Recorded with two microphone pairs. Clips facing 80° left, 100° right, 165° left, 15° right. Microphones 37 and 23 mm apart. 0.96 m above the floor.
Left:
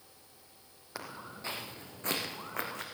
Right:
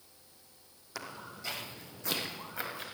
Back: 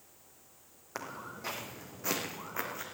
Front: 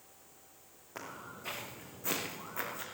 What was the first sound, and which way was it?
Footsteps, 150° left.